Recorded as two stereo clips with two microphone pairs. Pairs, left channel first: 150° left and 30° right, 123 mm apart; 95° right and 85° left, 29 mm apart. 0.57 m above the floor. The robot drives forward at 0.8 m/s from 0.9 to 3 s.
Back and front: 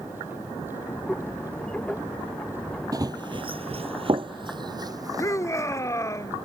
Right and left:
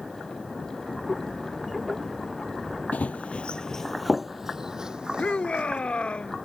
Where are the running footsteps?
85° right; by 5.8 s 35° left.